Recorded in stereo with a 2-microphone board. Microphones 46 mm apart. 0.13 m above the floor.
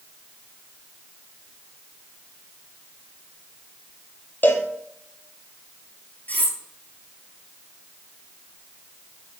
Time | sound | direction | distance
4.4 | a cowbell | 45° left (ahead or behind) | 1.4 m
6.3 | cutlery clinking | 40° left (ahead or behind) | 1.5 m